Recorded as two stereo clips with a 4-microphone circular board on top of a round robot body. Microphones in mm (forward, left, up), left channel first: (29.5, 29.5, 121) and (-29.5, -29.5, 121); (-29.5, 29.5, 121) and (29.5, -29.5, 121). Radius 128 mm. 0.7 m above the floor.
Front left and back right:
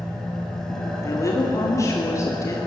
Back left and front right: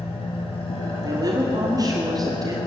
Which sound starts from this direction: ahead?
A woman speaking, at 1.0 s.